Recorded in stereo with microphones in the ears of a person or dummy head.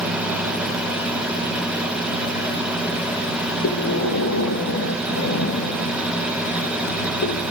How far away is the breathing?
About 1.6 m.